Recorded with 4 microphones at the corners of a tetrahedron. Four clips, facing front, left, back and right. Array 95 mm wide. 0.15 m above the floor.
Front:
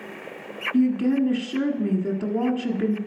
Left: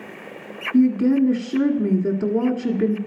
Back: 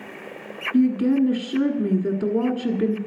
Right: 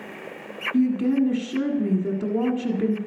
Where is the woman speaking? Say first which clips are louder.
Left 4 dB, back 2 dB; 120° left, 1.3 m.